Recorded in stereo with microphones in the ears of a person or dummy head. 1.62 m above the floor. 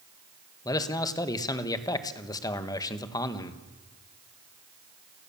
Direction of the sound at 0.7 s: 20° left (ahead or behind).